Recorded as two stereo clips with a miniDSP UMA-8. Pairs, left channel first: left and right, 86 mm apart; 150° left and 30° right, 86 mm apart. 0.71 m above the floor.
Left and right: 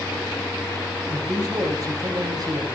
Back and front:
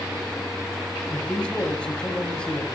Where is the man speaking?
130° right, 5 m.